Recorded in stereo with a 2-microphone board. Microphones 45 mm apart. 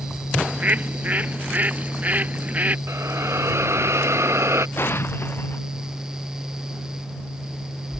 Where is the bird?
35° right (ahead or behind).